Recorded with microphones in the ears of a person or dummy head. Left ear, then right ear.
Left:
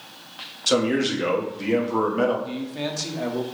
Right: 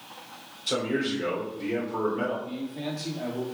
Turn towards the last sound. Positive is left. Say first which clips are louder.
# left 5 dB
turn(degrees=80)